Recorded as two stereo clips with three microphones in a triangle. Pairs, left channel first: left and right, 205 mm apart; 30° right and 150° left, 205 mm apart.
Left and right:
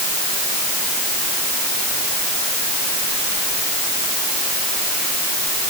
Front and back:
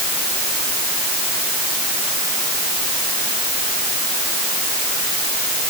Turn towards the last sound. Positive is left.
No sound to turn to.